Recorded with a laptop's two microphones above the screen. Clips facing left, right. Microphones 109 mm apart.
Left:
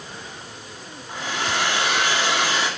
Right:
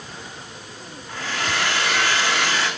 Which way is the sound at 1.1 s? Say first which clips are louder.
Even; 20° left (ahead or behind).